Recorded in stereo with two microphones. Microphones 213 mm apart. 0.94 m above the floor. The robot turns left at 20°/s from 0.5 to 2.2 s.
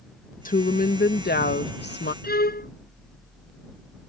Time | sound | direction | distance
0.5 | a woman speaking | 125° left | ?
2.2 | a violin | 45° left (ahead or behind) | ?